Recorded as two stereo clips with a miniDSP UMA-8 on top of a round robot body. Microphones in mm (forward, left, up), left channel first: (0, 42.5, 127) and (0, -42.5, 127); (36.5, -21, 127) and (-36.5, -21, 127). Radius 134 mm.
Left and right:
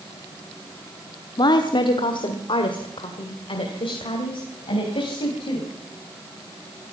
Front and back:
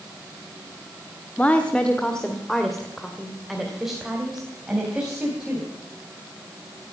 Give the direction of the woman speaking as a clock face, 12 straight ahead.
10 o'clock.